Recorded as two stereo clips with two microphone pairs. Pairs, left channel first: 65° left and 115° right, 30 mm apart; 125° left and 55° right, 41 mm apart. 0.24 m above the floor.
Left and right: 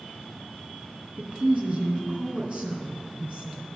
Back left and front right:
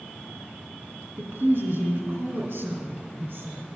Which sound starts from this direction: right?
A woman speaking, at 1.2 s.